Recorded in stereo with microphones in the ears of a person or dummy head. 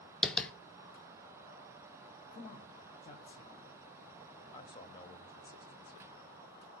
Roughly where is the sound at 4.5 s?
Left.